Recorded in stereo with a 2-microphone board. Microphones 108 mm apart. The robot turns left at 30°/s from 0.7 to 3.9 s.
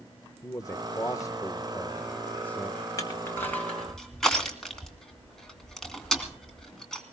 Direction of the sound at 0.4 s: 30° left (ahead or behind).